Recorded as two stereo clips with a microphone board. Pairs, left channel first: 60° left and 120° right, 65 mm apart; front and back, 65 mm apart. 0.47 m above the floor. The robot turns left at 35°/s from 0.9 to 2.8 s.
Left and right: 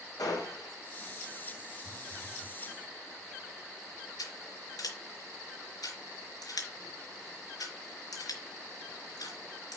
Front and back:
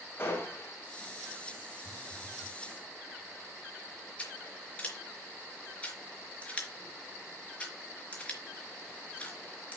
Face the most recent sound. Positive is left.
turn(degrees=70)